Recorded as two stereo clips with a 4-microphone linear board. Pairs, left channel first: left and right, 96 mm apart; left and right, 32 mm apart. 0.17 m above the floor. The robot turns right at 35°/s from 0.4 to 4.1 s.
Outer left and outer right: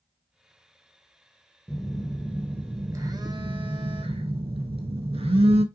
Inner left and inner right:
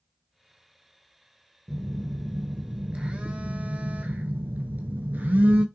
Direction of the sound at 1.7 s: 175° left.